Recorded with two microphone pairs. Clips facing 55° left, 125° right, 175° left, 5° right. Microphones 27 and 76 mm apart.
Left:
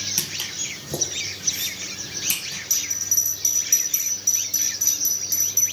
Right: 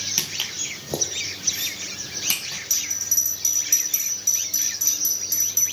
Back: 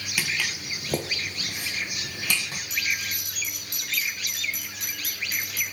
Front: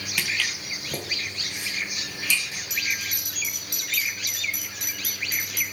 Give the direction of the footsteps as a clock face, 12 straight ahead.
4 o'clock.